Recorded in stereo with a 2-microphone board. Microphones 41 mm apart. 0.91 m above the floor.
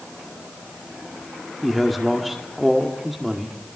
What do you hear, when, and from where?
1.6 s a man speaking: centre (ahead or behind), 1.9 m